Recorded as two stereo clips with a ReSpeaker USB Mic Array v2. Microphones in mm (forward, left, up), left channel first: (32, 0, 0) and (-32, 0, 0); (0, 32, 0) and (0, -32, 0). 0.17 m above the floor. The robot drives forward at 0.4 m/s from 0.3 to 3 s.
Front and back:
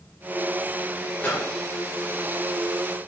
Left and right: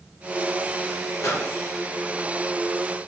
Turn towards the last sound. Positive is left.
turn(degrees=90)